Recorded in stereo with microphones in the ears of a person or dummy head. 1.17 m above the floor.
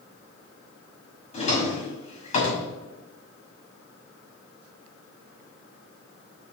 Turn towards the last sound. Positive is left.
turn(degrees=40)  # may be behind; listen again after turning